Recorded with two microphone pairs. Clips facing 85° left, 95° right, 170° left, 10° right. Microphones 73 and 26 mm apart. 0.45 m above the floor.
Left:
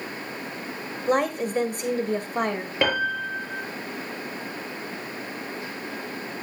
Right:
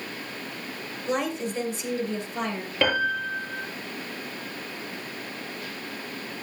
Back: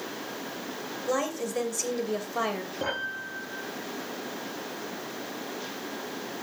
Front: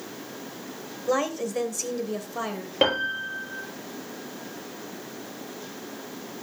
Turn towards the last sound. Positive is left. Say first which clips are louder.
# even, front 10 dB
turn(degrees=10)